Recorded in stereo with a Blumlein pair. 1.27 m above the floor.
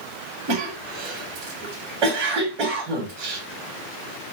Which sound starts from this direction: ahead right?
A cough, at 0.5 s.